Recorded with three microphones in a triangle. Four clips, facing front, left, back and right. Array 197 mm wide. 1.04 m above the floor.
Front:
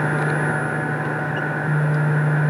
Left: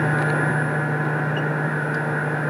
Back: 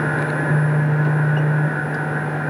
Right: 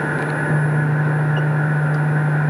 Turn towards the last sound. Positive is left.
No sound to turn to.